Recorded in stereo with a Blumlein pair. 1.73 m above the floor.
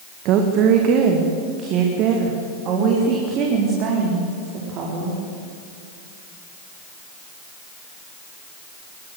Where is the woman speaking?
40° right, 1.8 m; by 5.2 s 35° right, 5 m.